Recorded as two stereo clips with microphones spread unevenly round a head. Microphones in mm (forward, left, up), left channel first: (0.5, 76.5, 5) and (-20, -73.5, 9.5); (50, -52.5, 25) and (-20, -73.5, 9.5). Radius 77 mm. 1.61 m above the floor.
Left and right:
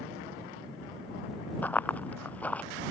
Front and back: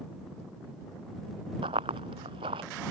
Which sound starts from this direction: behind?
Running footsteps, at 1.6 s.